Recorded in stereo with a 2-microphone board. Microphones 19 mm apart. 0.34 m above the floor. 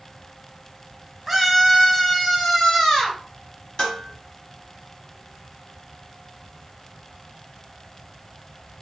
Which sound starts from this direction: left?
Dishes clattering, at 3.8 s.